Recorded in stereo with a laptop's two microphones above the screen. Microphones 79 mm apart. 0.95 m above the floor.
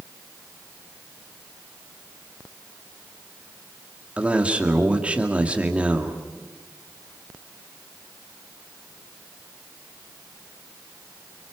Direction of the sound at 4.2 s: 15° right (ahead or behind).